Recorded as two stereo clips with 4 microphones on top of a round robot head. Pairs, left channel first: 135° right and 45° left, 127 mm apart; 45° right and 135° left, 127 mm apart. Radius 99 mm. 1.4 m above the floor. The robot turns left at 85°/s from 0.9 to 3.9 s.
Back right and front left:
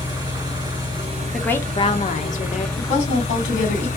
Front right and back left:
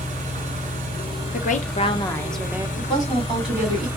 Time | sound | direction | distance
0.0 | an engine running | 100° left | 2.0 m
1.3 | a woman speaking | 45° right | 0.8 m
2.8 | a woman speaking | 85° right | 2.5 m